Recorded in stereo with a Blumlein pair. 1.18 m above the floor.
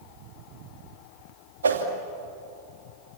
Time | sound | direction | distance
1.6 | a whoosh | 70° right | 2.5 m